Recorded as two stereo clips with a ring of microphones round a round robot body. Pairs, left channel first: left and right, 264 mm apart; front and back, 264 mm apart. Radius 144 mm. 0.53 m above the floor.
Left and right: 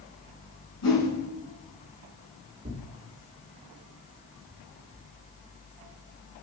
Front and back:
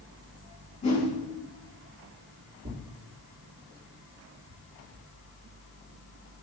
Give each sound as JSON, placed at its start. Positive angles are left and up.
{"t": 0.8, "sound": "a whoosh", "azimuth_deg": 65, "distance_m": 4.0}
{"t": 2.6, "sound": "tearing paper", "azimuth_deg": -150, "distance_m": 1.3}